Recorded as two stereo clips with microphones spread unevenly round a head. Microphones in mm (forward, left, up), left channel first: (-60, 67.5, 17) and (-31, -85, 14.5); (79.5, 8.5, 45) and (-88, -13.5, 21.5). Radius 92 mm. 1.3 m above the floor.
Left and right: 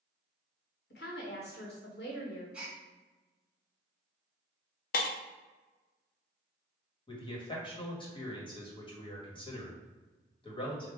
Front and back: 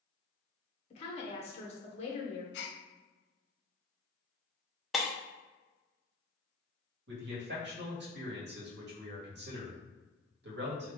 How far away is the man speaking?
About 1.7 m.